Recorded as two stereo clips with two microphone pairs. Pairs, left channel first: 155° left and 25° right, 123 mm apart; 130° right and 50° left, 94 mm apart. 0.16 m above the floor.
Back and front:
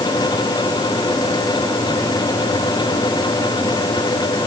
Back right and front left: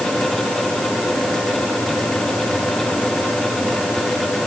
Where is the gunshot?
No gunshot in this recording.